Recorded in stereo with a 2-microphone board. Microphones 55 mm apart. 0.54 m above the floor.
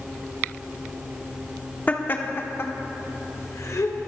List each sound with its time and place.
1.9 s laughter: 30° left (ahead or behind), 1.4 m; by 4.0 s 65° left (ahead or behind), 3 m